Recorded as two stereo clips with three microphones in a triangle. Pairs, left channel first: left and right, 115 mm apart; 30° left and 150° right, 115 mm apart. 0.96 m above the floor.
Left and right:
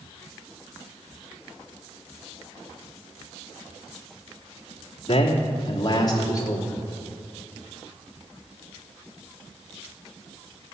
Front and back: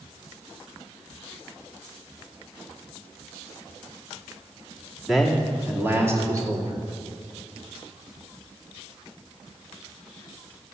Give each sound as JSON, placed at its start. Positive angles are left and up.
{"t": 5.1, "sound": "a man speaking", "azimuth_deg": 120, "distance_m": 2.5}